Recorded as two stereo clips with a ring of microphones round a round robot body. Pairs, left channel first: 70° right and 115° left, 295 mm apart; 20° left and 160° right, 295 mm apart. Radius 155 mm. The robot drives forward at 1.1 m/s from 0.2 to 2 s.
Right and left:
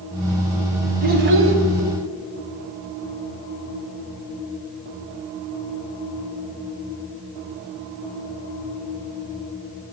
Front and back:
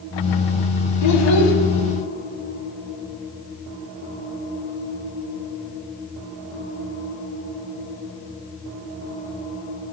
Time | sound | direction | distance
1.0 | a child speaking | 50° left | 1.6 m